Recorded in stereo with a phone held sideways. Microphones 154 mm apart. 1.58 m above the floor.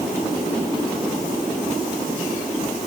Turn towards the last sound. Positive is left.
No sound to turn to.